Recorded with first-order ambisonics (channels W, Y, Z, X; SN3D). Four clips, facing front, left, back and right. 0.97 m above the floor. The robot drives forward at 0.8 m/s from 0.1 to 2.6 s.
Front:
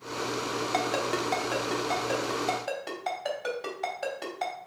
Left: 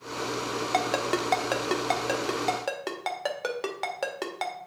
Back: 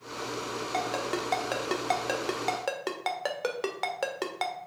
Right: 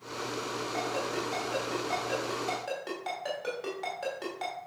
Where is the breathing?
I don't hear breathing.